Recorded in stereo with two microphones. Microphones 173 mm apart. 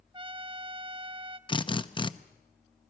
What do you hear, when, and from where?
0.1 s a trumpet: 25° right (ahead or behind), 0.9 m
1.5 s a drill: 30° left (ahead or behind), 0.7 m